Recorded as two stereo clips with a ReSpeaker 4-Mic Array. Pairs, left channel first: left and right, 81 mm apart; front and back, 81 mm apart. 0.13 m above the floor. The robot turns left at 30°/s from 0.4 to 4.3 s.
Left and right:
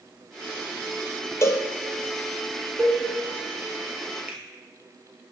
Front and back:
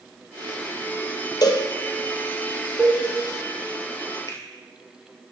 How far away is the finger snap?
About 1.9 m.